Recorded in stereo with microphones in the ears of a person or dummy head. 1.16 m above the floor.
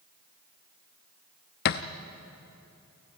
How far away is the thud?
About 0.7 m.